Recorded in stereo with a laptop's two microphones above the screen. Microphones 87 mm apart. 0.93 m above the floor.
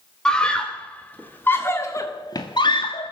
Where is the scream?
10° left (ahead or behind), 3 m; by 3.1 s 75° left (ahead or behind), 1.4 m.